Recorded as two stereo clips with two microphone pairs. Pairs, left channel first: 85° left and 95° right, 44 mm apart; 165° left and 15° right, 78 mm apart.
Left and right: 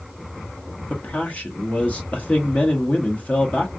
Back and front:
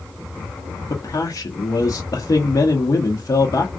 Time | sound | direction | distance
0.9 | a man speaking | 135° left | 0.7 m